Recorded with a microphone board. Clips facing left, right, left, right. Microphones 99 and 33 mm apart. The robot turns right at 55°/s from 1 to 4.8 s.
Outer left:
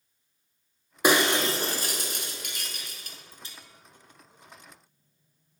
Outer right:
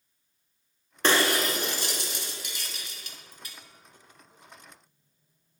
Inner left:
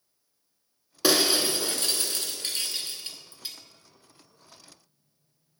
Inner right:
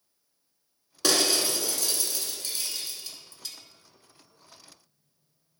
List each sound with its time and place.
1.0 s breaking glass: 10° left (ahead or behind), 0.8 m; by 3.5 s 25° left (ahead or behind), 0.8 m